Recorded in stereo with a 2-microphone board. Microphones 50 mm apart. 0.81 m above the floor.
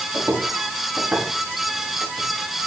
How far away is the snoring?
I don't hear snoring.